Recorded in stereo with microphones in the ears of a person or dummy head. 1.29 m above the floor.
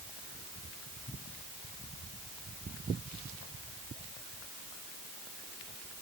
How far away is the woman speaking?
No woman speaking in this recording.